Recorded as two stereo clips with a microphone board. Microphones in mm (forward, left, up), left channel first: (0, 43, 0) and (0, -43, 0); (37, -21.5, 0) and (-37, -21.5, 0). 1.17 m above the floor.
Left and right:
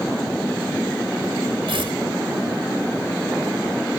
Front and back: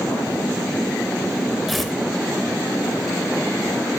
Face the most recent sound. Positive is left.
turn(degrees=-90)